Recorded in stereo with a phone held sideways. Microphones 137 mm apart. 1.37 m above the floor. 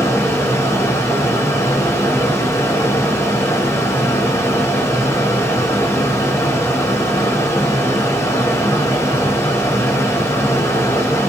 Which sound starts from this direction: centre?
A fan, at 0.0 s.